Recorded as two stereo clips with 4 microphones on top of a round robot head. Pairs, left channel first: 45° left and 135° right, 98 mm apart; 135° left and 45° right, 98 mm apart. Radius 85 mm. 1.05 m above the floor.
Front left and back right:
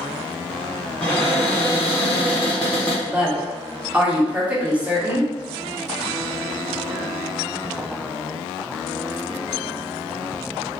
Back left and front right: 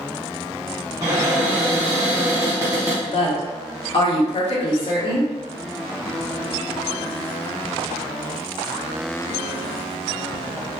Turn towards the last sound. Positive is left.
turn(degrees=150)